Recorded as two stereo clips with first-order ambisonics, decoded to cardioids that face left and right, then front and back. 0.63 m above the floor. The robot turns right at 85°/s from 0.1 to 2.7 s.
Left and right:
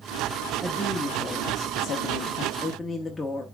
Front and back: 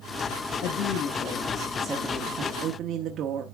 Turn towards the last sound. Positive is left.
turn(degrees=165)